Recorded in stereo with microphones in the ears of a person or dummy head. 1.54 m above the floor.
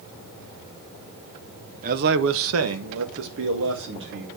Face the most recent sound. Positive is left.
turn(degrees=-60)  # may be behind; listen again after turning